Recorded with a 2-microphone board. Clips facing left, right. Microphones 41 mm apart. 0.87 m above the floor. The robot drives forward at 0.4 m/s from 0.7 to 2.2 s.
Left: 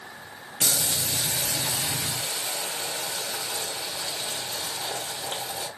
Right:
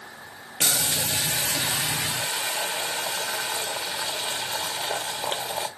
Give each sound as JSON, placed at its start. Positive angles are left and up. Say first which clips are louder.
{"t": 0.6, "sound": "boiling", "louder": "right 2 dB", "side_deg": -75, "distance_m": 1.2}